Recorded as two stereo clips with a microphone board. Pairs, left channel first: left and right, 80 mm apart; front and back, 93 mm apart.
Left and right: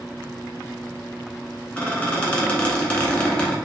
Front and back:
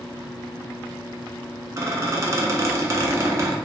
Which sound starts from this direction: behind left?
A squeak, at 1.8 s.